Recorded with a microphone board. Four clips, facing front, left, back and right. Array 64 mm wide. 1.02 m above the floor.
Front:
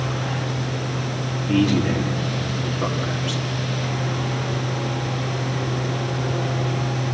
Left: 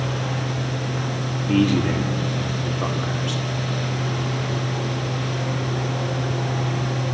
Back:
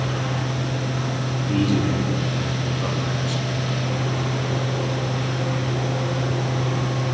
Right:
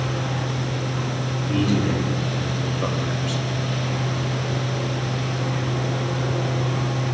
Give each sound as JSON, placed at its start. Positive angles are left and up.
{"t": 1.5, "sound": "a man speaking", "azimuth_deg": 60, "distance_m": 2.5}